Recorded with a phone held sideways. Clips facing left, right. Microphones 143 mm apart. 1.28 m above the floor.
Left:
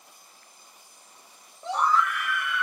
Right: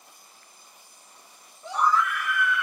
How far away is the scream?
About 1.8 m.